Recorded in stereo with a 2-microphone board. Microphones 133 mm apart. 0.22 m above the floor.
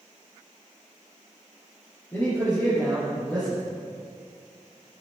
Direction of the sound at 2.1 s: 15° left (ahead or behind).